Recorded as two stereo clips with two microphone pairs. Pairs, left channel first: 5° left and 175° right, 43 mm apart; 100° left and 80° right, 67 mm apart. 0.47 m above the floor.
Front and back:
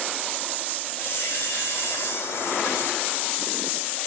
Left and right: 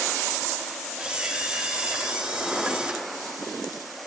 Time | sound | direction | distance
1.0 | a camera shutter | 5° right | 5 m